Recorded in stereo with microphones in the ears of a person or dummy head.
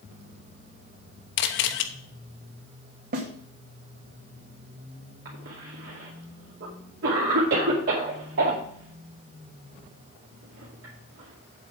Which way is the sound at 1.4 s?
65° left (ahead or behind).